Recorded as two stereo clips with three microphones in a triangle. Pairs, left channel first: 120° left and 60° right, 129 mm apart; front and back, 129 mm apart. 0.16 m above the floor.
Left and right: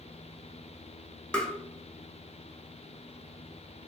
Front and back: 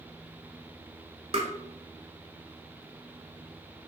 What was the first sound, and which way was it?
Tapping, 160° right.